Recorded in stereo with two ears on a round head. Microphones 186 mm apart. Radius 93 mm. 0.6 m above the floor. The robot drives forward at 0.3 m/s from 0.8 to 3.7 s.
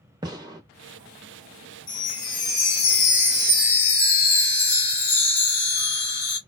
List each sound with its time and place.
0.2 s a gunshot: 20° right (ahead or behind), 0.7 m
1.9 s a chime: 40° left (ahead or behind), 0.9 m; by 6.4 s 30° left (ahead or behind), 1.3 m